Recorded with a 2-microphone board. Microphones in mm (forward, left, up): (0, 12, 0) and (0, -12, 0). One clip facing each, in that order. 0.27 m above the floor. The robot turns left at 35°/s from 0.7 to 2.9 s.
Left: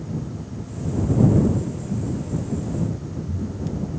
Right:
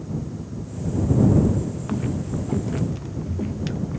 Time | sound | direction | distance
1.9 | footsteps | 75° right (ahead or behind) | ?